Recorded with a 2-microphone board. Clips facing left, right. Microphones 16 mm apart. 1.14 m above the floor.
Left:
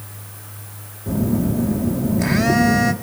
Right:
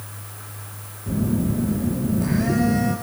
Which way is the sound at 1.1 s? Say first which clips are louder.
Left 3 dB; 65° left (ahead or behind).